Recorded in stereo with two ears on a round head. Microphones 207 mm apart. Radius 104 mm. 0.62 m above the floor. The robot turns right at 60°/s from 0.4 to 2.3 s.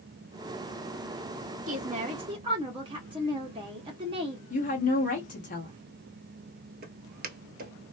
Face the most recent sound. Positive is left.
turn(degrees=-45)  # may be behind; listen again after turning